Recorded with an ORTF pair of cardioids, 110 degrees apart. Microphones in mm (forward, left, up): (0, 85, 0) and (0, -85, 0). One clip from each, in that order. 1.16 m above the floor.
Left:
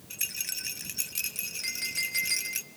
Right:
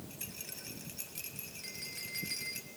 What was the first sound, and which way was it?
A rattle, 60° left.